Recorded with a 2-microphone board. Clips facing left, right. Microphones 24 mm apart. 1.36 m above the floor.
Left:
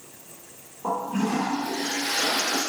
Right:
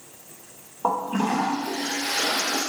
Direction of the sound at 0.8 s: 85° right.